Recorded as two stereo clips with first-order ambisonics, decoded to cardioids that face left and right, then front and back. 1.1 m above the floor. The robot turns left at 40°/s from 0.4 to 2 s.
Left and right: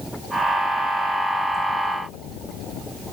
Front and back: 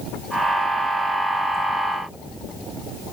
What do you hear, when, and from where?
Only background noise.